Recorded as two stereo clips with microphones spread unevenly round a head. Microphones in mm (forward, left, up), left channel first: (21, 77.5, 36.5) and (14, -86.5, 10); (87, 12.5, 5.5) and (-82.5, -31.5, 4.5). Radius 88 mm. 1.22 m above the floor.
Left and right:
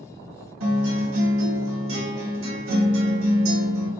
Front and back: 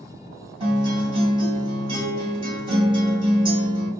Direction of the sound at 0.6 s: 105° right.